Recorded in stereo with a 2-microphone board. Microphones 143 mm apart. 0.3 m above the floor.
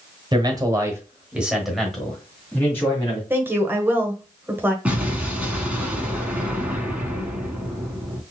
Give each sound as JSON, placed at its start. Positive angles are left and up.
{"t": 0.3, "sound": "a man speaking", "side_deg": -30, "distance_m": 1.2}
{"t": 3.3, "sound": "a woman speaking", "side_deg": -15, "distance_m": 1.0}
{"t": 4.8, "sound": "an explosion", "side_deg": -10, "distance_m": 1.1}